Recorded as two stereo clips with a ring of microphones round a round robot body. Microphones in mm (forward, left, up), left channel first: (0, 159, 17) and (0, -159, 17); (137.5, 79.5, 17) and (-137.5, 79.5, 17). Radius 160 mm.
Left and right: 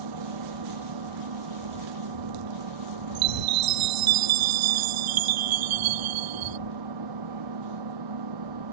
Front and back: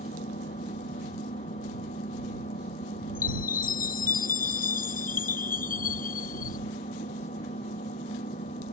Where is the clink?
No clink in this recording.